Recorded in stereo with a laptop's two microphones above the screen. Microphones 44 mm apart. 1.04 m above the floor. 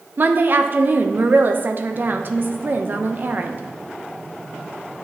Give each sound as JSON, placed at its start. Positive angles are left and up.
{"t": 0.2, "sound": "a woman speaking", "side_deg": -45, "distance_m": 0.5}